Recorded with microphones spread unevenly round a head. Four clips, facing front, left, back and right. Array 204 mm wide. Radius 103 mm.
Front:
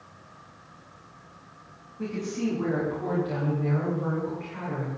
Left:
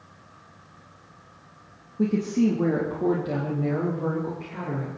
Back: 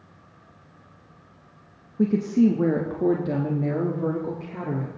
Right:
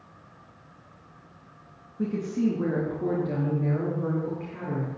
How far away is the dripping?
No dripping in this recording.